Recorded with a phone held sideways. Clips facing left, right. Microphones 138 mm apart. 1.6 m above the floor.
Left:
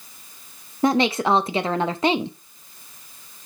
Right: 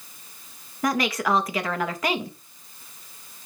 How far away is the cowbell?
No cowbell in this recording.